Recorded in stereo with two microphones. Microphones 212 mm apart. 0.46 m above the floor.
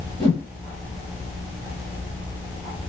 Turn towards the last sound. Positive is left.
turn(degrees=25)  # may be behind; listen again after turning